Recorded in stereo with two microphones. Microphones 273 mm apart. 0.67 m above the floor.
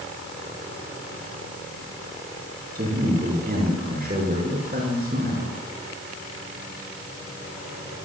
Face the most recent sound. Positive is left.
turn(degrees=-35)  # may be behind; listen again after turning